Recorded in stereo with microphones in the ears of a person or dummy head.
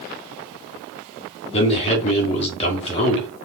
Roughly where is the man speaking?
Left.